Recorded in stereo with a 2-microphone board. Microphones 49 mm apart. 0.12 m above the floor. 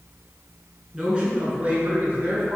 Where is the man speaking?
15° right (ahead or behind), 1.3 m; by 2.6 s 50° right (ahead or behind), 1.9 m.